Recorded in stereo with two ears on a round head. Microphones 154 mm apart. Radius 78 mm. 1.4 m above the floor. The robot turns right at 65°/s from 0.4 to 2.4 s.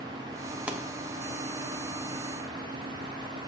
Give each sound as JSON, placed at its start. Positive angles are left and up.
{"t": 0.7, "sound": "a pop", "side_deg": -10, "distance_m": 0.8}